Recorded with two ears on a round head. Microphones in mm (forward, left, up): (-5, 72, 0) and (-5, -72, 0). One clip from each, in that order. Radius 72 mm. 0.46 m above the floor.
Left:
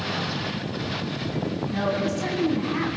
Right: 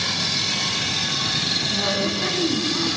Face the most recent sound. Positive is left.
turn(degrees=70)  # may be behind; listen again after turning